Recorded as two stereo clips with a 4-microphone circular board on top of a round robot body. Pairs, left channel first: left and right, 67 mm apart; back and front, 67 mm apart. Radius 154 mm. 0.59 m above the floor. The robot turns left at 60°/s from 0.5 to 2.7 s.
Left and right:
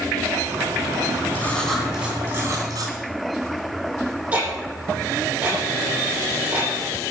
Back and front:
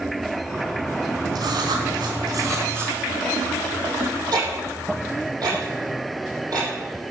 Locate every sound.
1.4 s writing: 25° left, 2.5 m; by 3.0 s 55° right, 2.5 m
4.3 s ticking: 20° right, 7.5 m